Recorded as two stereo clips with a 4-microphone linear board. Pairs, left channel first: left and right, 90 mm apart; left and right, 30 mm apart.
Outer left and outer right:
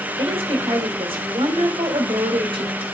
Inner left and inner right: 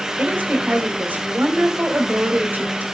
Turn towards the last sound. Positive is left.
turn(degrees=-75)  # may be behind; listen again after turning